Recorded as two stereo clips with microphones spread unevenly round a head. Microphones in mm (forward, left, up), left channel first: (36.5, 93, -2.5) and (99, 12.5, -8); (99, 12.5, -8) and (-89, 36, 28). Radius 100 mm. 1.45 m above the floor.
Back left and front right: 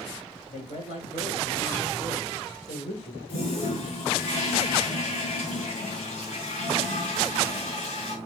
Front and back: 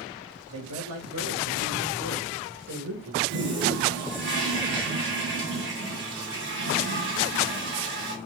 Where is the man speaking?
175° left, 7.5 m; by 3.2 s 160° left, 5.5 m.